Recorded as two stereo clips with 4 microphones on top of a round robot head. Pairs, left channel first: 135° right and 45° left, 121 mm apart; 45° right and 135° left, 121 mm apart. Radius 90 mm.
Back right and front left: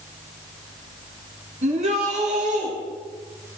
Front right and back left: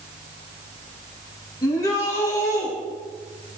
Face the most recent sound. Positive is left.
turn(degrees=25)